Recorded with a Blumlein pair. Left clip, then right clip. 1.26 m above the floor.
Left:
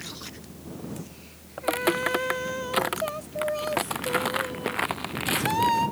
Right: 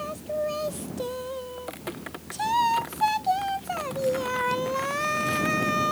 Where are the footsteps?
30° left.